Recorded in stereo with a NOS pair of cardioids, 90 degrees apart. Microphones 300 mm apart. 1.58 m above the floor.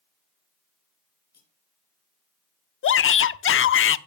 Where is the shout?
45° left, 0.9 m.